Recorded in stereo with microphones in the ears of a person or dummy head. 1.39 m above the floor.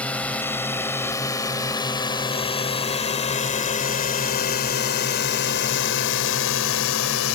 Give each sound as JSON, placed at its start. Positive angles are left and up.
{"t": 0.0, "sound": "a drone", "side_deg": 10}